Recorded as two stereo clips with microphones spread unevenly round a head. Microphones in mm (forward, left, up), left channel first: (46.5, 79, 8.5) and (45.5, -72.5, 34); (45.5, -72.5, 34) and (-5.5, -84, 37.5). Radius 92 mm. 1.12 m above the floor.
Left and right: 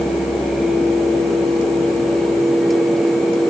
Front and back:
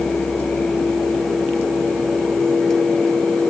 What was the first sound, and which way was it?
Only background noise.